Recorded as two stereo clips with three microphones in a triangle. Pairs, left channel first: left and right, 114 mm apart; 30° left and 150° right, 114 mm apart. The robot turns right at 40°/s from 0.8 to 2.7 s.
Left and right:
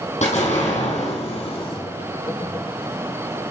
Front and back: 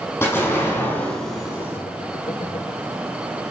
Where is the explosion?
100° left, 5 m; by 1.8 s 140° left, 5 m.